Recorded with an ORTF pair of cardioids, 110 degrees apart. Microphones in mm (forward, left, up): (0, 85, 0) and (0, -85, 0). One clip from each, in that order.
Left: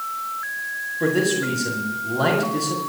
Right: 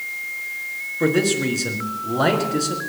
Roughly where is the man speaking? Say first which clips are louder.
Right 2 dB; ahead right.